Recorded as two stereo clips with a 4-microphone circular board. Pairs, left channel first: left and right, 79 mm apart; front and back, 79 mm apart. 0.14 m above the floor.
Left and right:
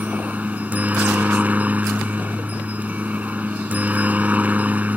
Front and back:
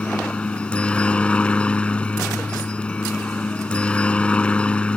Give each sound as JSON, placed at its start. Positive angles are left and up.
{"t": 0.0, "sound": "a helicopter", "azimuth_deg": -55}